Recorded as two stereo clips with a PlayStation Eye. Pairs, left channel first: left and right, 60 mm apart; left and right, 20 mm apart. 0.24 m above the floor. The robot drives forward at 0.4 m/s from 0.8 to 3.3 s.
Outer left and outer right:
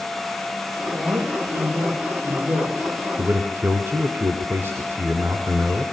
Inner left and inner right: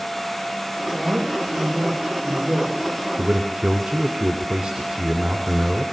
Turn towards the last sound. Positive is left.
turn(degrees=-40)  # may be behind; listen again after turning